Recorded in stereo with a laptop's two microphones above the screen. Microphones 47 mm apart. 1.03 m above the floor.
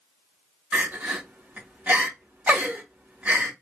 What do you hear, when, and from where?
0.7 s crying: 30° right (ahead or behind), 1.6 m